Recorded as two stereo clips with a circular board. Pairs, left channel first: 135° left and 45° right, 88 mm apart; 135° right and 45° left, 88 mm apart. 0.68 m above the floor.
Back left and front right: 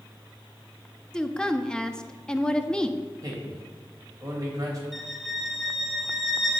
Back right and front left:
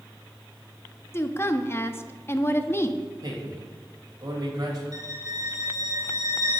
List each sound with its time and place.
1.1 s a woman speaking: 150° right, 0.5 m
3.2 s a man speaking: straight ahead, 3.5 m
4.9 s a violin: 45° left, 1.1 m